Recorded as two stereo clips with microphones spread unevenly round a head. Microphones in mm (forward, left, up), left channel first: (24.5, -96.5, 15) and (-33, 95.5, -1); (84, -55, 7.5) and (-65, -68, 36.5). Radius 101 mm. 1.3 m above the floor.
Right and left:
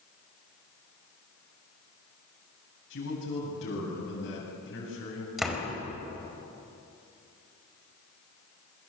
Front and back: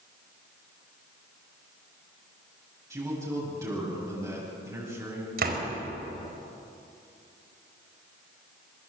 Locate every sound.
2.9 s a man speaking: 105° right, 8.5 m
5.4 s a door slam: 165° right, 4.5 m